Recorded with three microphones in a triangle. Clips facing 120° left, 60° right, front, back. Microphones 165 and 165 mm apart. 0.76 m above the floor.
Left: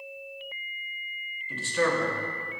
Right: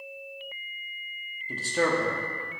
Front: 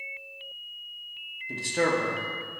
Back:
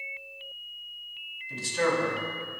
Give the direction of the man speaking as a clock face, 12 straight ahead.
12 o'clock.